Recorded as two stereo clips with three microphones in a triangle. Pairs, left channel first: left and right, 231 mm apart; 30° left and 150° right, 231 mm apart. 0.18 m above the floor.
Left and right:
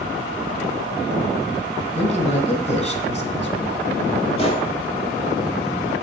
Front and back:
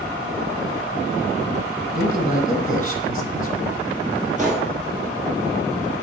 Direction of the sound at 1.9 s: 50° left.